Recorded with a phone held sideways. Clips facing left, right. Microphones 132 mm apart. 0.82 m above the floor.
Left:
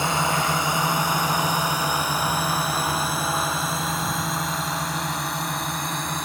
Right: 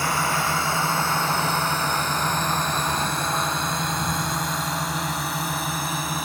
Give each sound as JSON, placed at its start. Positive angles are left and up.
{"t": 0.0, "sound": "a drone", "side_deg": 20}